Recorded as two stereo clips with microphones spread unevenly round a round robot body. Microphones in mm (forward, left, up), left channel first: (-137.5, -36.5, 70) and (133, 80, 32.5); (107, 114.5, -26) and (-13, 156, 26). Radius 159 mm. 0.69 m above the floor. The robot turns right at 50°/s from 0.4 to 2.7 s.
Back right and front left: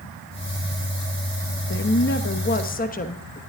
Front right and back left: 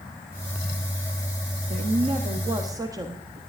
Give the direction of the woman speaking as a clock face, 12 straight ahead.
5 o'clock.